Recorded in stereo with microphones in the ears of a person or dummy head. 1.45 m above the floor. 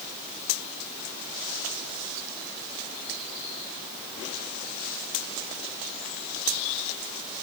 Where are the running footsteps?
I don't hear running footsteps.